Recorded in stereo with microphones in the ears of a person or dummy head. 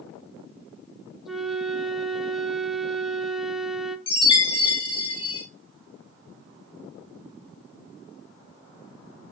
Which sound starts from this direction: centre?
A flute, at 1.2 s.